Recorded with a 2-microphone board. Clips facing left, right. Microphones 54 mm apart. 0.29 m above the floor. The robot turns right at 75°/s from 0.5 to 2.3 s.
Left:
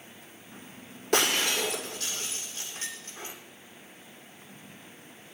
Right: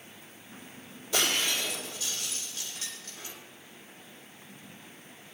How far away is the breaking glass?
About 6.5 m.